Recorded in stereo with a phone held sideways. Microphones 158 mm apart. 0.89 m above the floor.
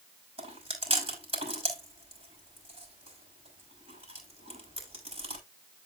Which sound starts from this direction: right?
Chewing, at 0.4 s.